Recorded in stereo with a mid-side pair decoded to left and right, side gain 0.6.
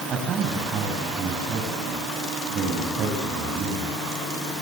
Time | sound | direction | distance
0.1 | a man speaking | 45° right | 7.5 m